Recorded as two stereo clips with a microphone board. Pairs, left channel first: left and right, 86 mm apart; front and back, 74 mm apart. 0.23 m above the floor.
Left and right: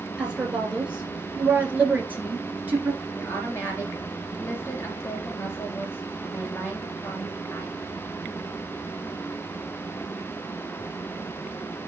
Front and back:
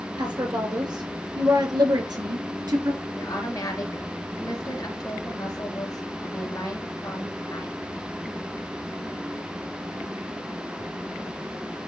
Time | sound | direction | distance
0.2 | a woman speaking | 170° right | 4.5 m
3.1 | a woman speaking | 30° left | 3 m